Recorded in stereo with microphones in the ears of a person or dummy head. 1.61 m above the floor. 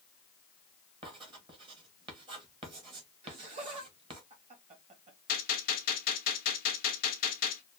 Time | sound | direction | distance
1.0 | writing | 25° right (ahead or behind) | 1.3 m
3.2 | laughter | 35° right (ahead or behind) | 1.8 m
5.3 | a gunshot | 50° left (ahead or behind) | 1.0 m